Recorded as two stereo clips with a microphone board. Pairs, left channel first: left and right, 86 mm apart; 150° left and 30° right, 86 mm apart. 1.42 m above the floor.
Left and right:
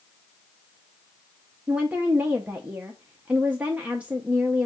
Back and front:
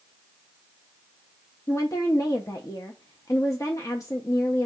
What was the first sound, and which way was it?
A woman speaking, 165° right.